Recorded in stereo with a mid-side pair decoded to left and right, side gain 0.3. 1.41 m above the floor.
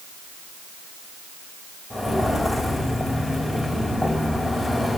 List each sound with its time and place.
1.9 s footsteps: 35° left, 5 m